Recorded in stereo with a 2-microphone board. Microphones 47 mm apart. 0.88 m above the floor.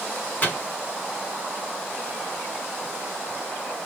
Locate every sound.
0.4 s a microwave: 35° left (ahead or behind), 1.9 m